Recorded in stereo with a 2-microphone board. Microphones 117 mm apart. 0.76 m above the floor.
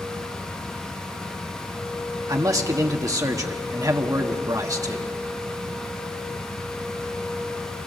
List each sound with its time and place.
2.3 s a man speaking: 30° right (ahead or behind), 1.3 m